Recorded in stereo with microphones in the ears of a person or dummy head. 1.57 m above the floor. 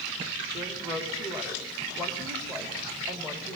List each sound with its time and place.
0.5 s a woman speaking: 10° right (ahead or behind), 3.5 m